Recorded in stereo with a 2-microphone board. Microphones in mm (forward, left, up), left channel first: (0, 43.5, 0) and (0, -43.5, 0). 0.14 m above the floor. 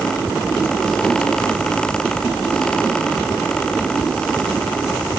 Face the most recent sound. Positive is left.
No sound to turn to.